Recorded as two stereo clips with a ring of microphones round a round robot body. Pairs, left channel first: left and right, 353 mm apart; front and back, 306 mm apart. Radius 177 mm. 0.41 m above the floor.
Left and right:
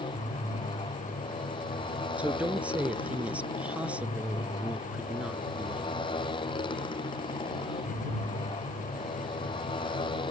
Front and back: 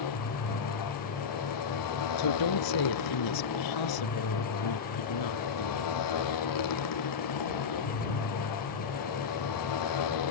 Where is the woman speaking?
5° right.